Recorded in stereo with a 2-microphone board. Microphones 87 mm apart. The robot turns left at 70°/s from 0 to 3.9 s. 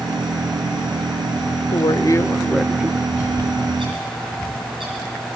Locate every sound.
1.7 s a woman speaking: 65° left, 0.6 m; by 3.0 s 25° right, 0.6 m
3.1 s a bird: 30° right (ahead or behind), 8.5 m; by 5.1 s 80° right, 8.5 m